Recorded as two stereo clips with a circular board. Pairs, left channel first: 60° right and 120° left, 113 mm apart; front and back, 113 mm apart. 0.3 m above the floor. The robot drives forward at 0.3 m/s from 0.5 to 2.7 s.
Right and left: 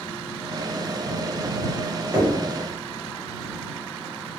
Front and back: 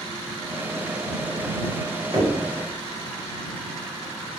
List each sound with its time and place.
2.1 s knocking: 175° left, 1.3 m